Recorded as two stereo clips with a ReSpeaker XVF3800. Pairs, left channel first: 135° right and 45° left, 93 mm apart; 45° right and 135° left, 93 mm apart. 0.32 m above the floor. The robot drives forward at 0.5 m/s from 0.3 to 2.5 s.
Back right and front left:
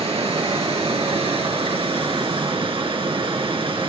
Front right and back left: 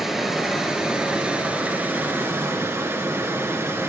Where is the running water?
45° left, 2.5 m; by 3.9 s 70° left, 2 m.